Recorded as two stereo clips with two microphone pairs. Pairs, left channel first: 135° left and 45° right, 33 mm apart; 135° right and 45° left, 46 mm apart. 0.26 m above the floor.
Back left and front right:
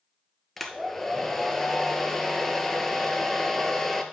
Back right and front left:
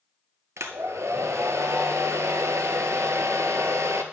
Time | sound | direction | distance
0.6 | a hair dryer | 55° left | 0.8 m